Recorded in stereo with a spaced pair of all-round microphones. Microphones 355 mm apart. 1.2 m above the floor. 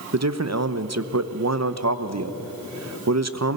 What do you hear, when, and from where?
0.1 s a man speaking: 45° right (ahead or behind), 0.8 m